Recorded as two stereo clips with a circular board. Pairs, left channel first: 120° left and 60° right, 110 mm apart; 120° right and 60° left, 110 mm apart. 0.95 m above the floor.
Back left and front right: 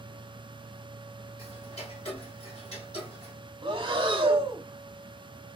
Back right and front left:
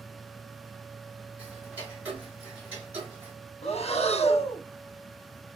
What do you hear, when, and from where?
1.4 s ticking: 135° left, 2.5 m
3.6 s breathing: 95° right, 0.8 m